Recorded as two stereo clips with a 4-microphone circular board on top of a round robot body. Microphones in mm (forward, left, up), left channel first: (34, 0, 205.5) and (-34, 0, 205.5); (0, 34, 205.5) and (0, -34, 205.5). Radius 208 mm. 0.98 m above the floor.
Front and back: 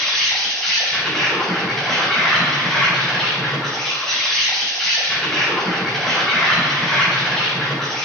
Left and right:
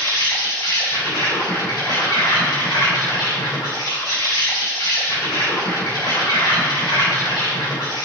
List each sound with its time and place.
0.0 s an insect: 80° left, 4.5 m